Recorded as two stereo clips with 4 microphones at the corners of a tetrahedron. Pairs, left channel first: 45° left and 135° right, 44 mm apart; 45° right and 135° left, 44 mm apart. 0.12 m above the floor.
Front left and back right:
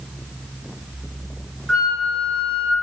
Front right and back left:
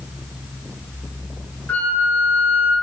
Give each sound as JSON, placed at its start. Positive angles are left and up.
{"t": 1.7, "sound": "a flute", "azimuth_deg": -30, "distance_m": 1.6}